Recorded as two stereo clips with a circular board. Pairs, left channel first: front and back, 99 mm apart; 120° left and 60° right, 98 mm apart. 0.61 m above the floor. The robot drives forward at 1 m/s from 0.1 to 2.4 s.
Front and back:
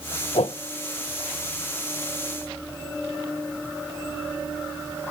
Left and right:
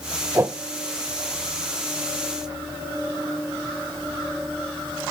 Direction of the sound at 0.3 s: Straight ahead.